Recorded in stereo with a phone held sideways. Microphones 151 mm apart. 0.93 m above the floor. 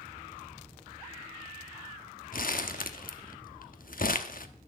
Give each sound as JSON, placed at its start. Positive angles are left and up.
{"t": 2.3, "sound": "crumpling", "side_deg": 65, "distance_m": 0.9}